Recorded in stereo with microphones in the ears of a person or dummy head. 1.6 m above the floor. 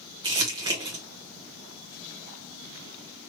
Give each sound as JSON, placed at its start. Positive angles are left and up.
{"t": 0.2, "sound": "crumpling", "side_deg": -20, "distance_m": 0.7}